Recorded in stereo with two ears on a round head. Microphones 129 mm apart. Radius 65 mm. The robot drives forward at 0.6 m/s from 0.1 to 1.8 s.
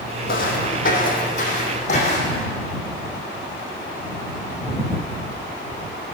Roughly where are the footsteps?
Left.